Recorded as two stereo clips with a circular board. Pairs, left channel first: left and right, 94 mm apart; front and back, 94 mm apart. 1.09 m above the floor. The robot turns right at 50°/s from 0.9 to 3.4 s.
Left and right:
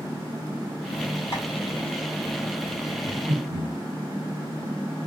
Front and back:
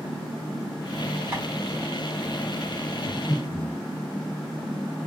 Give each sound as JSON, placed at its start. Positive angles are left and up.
{"t": 1.3, "sound": "tapping", "azimuth_deg": 120, "distance_m": 2.0}
{"t": 3.0, "sound": "breathing", "azimuth_deg": -95, "distance_m": 0.8}